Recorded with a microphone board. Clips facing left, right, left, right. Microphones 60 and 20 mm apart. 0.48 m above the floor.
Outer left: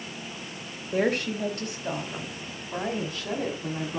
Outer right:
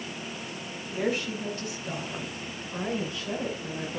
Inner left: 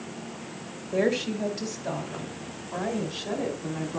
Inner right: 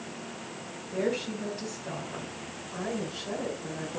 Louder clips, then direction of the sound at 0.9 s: Outer left 4 dB, inner left 5 dB; 60° left (ahead or behind).